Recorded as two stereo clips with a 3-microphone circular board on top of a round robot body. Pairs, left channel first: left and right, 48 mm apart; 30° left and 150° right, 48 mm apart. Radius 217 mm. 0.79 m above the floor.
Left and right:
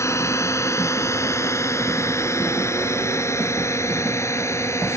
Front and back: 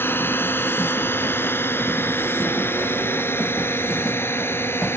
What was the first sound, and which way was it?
A drone, 70° left.